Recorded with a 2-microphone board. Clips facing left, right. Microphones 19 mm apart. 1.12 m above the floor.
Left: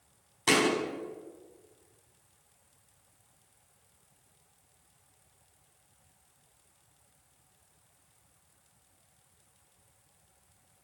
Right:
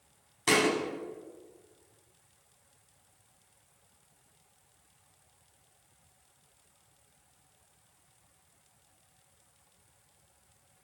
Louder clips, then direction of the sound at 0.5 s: Even; 10° left (ahead or behind).